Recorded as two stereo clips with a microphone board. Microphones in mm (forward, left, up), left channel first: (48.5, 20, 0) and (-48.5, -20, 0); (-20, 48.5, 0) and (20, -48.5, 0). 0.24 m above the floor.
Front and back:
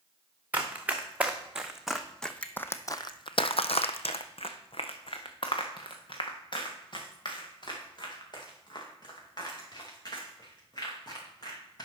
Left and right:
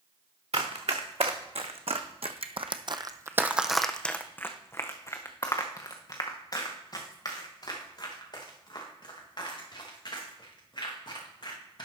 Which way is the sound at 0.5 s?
85° right.